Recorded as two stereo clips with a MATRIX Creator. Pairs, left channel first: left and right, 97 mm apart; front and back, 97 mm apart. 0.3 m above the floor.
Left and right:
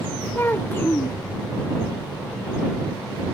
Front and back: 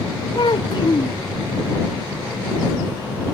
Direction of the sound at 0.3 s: 25° left.